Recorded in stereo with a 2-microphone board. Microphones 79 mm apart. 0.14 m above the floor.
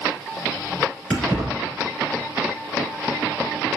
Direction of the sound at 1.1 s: 10° left (ahead or behind).